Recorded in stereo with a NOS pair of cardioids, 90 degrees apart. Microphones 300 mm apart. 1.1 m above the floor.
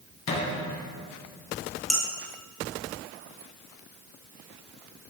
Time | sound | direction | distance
0.3 | a thud | 60° left | 2.5 m
1.9 | dishes clattering | straight ahead | 2.0 m